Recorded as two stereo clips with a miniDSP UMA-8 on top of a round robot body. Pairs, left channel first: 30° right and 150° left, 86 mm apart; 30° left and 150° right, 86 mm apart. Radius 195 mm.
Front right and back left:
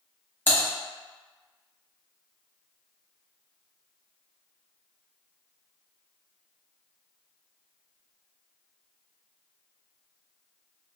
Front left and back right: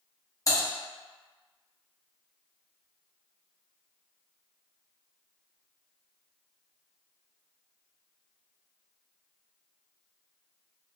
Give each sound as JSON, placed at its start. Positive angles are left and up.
{"t": 0.5, "sound": "typing on a keyboard", "azimuth_deg": 25, "distance_m": 1.4}